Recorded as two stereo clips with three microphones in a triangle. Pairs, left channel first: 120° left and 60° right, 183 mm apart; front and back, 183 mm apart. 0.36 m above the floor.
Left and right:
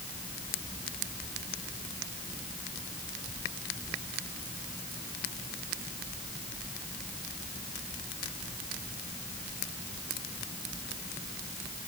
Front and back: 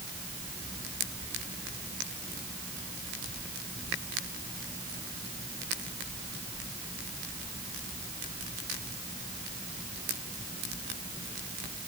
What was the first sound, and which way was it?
Only background noise.